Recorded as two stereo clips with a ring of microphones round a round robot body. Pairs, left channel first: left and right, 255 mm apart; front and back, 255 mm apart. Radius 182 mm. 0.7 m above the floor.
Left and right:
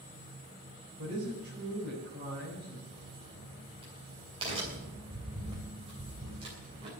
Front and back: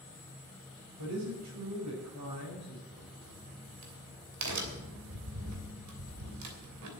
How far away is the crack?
About 3 m.